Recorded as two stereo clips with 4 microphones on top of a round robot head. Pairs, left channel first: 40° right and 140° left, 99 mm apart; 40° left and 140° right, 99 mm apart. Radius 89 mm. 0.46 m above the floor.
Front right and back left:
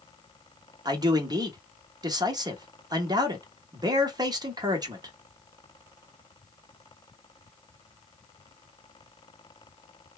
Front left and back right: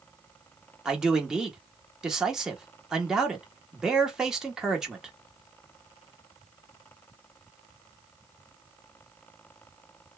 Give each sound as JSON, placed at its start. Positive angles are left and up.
{"t": 0.8, "sound": "a man speaking", "azimuth_deg": 140, "distance_m": 1.0}